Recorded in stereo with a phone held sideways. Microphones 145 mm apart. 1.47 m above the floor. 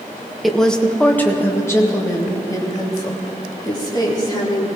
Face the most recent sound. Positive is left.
turn(degrees=30)  # may be behind; listen again after turning